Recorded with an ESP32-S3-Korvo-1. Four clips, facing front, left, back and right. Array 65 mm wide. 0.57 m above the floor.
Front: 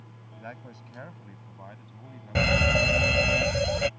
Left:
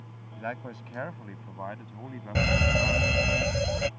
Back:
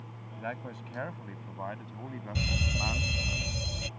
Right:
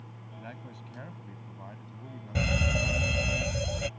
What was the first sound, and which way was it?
A man speaking, 105° left.